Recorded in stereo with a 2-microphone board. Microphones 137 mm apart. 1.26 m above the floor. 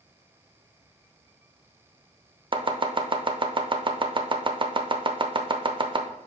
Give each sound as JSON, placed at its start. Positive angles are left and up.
{"t": 2.5, "sound": "chopping", "side_deg": -35, "distance_m": 0.6}